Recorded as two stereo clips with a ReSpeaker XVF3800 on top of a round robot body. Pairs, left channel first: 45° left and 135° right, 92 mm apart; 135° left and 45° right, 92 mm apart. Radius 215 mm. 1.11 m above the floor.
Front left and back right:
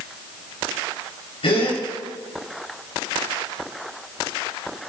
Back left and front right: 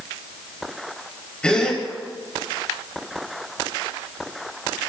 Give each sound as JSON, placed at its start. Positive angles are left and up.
{"t": 1.4, "sound": "a gasp", "azimuth_deg": 55, "distance_m": 4.0}